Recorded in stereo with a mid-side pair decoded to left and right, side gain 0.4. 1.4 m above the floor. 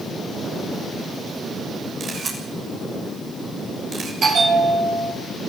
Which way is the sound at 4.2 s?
55° right.